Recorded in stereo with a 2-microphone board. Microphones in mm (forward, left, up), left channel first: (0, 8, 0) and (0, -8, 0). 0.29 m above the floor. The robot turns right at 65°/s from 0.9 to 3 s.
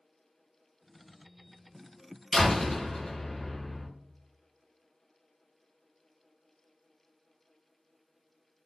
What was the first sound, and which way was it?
A door slam, 5° left.